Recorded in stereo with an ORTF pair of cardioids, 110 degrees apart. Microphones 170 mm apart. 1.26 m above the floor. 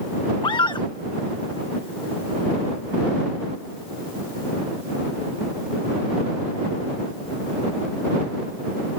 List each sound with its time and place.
0.4 s a scream: 30° left